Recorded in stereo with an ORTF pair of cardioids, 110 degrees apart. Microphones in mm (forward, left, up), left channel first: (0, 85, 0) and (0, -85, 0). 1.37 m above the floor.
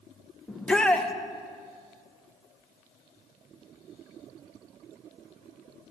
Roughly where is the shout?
Ahead.